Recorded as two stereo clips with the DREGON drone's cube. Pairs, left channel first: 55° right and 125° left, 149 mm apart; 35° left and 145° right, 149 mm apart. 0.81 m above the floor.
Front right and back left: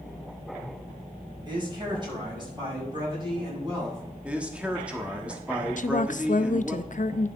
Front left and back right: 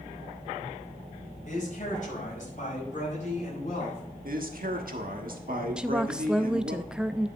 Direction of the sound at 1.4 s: 65° left.